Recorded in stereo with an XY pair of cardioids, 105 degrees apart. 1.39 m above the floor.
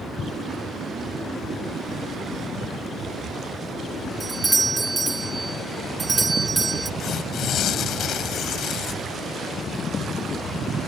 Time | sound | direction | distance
4.2 | a doorbell | 20° right | ?
7.0 | tearing paper | 65° left | ?